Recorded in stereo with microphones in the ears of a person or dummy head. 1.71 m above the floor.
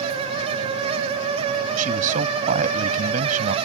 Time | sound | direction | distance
1.8 | a man speaking | 50° right (ahead or behind) | ?